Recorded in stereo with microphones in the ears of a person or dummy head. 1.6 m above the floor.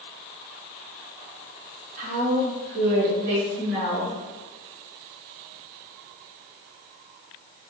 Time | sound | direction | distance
2.0 | a woman speaking | 45° right (ahead or behind) | 0.8 m